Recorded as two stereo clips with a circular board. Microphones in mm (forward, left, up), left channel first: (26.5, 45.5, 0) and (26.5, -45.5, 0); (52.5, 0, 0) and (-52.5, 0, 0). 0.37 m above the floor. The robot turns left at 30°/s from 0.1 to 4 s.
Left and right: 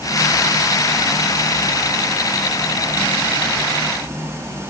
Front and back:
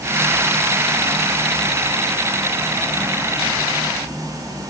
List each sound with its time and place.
Only background noise.